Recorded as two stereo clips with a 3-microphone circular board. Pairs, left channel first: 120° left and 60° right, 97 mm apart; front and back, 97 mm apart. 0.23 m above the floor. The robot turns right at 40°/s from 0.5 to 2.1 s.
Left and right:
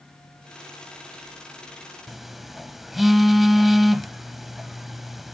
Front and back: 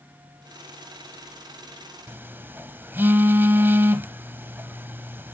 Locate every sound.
2.1 s a phone buzzing: 150° right, 0.7 m; by 5.3 s 145° right, 0.7 m